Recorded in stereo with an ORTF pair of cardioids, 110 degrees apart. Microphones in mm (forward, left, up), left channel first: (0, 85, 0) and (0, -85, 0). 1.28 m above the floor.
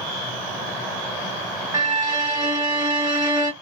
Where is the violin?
20° right, 1.5 m.